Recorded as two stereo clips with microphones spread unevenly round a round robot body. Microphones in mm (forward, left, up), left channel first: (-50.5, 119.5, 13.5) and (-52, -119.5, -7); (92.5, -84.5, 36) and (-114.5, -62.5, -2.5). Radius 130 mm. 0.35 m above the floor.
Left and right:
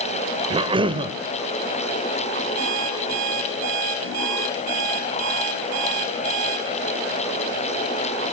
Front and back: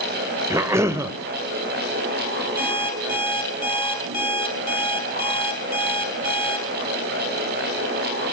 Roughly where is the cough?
Behind right.